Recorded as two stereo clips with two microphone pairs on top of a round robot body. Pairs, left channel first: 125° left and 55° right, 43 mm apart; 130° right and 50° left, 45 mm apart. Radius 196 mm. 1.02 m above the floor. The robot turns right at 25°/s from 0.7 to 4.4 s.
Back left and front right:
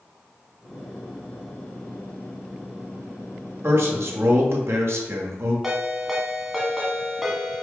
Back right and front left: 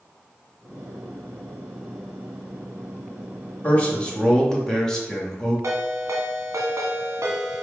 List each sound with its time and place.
3.6 s a man speaking: 75° right, 1.9 m; by 5.5 s 55° right, 1.9 m
5.6 s a ringtone: 25° left, 0.9 m